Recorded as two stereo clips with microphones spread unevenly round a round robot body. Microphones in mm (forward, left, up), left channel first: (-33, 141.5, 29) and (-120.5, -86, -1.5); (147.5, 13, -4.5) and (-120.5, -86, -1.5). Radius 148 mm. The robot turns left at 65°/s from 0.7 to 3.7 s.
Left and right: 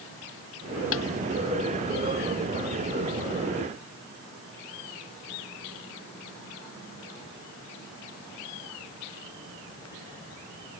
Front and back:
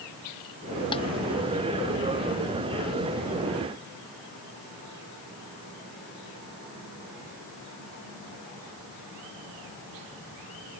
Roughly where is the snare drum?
Left.